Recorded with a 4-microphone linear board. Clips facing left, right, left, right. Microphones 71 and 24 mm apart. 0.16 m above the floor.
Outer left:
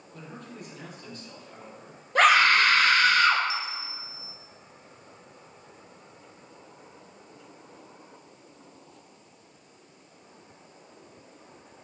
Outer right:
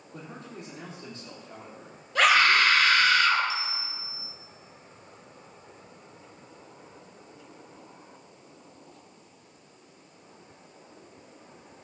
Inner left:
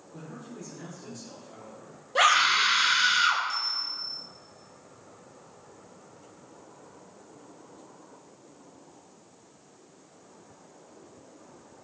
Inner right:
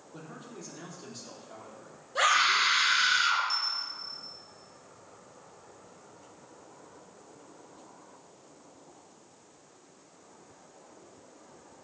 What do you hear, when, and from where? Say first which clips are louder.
0.1 s a man speaking: outer right 1 dB, inner left 3 dB; 25° right (ahead or behind), 4.5 m
2.1 s a scream: outer left 2 dB, inner left 3 dB; 45° left (ahead or behind), 3.5 m
3.5 s a bell: even, inner left 1 dB; 35° right (ahead or behind), 2.5 m